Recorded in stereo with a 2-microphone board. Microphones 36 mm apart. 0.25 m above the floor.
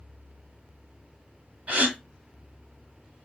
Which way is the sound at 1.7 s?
40° right (ahead or behind).